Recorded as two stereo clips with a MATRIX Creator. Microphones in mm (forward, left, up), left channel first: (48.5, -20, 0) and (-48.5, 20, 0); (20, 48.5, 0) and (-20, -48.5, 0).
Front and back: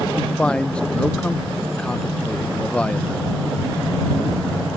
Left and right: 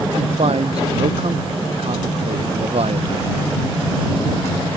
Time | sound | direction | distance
0.2 | a man speaking | 100° right | ?